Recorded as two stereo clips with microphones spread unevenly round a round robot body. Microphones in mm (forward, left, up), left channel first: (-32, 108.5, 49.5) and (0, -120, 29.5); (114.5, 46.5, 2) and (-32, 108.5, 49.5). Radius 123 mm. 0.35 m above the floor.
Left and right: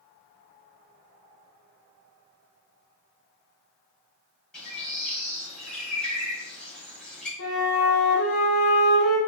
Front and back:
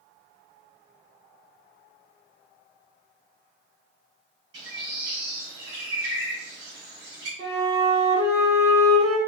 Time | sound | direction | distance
4.5 | a bird | 175° right | 1.8 m
7.4 | a flute | 130° left | 2.5 m